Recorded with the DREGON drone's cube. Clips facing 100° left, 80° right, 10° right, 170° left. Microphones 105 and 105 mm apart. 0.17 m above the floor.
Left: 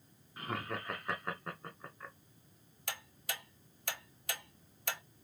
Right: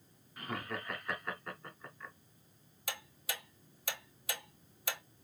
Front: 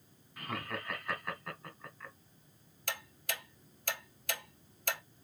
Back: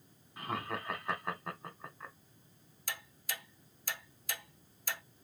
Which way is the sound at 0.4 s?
130° left.